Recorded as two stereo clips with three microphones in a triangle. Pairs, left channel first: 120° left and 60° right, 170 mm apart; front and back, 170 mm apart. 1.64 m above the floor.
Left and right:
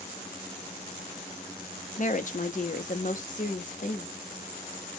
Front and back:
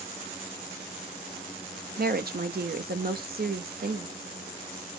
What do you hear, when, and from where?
2.0 s a woman speaking: 155° left, 0.6 m